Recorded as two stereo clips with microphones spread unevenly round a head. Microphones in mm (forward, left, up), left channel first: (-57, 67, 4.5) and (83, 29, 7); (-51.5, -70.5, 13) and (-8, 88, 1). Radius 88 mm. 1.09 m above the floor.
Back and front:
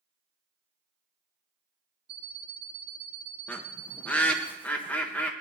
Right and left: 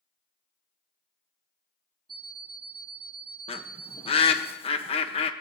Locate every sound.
2.1 s an alarm clock: 15° left, 0.8 m
3.5 s a bird: 125° right, 0.7 m